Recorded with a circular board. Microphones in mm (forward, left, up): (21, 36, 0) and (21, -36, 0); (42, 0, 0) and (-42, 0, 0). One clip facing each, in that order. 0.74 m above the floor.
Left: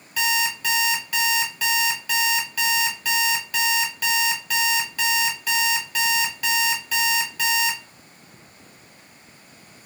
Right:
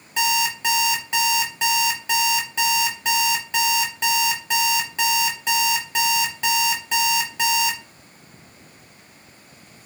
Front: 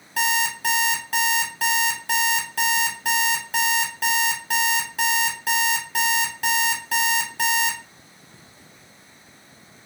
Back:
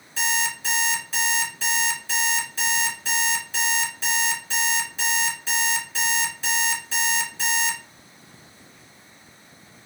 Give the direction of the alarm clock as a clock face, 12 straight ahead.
1 o'clock.